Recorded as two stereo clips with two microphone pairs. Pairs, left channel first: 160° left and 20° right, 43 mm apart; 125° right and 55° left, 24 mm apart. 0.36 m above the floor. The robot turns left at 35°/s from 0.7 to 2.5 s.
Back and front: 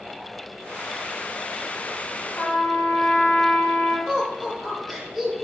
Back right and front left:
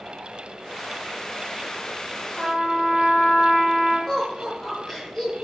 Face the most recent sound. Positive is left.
turn(degrees=-95)